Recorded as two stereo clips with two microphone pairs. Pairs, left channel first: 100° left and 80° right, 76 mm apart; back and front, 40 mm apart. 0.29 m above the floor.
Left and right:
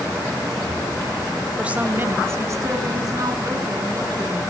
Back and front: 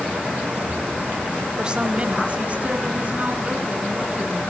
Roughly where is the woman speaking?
Ahead right.